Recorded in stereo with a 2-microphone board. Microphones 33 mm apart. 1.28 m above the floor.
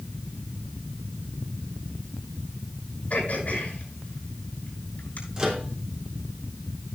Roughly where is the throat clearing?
Left.